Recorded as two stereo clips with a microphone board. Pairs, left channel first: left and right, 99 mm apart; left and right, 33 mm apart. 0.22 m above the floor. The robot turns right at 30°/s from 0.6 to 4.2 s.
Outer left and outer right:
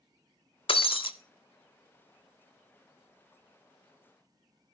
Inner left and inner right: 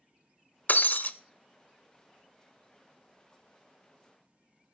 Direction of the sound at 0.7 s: 65° left (ahead or behind).